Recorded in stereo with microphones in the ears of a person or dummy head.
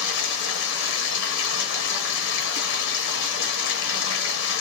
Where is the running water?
65° left (ahead or behind), 0.9 m.